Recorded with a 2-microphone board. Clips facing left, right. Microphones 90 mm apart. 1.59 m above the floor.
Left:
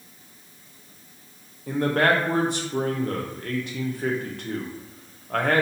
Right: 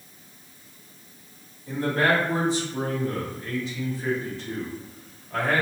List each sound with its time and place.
1.7 s a man speaking: 65° left (ahead or behind), 0.8 m